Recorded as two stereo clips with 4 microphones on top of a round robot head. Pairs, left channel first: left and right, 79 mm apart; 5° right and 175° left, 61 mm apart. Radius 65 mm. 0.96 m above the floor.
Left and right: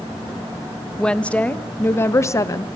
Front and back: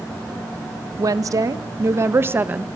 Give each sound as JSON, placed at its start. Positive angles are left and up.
{"t": 1.0, "sound": "a woman speaking", "azimuth_deg": 170, "distance_m": 1.6}